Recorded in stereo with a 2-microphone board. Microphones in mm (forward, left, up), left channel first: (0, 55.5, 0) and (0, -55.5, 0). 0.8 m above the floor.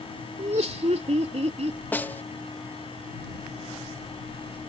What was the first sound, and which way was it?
Laughter, 75° right (ahead or behind).